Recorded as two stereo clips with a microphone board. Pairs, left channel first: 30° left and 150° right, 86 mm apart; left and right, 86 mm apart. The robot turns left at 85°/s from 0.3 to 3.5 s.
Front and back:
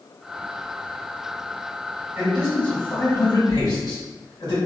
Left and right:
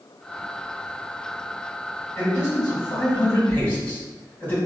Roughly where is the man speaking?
Behind left.